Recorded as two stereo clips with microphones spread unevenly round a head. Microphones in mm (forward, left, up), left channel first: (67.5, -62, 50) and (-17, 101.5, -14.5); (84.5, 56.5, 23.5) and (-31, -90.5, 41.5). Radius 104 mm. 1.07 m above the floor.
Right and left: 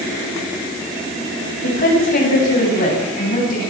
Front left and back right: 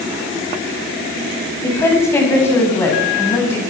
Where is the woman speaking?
25° right, 8 m.